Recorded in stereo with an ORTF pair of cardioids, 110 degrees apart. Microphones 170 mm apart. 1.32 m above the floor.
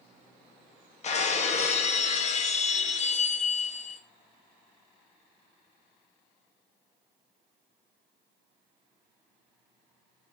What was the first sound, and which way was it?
Breaking glass, 40° left.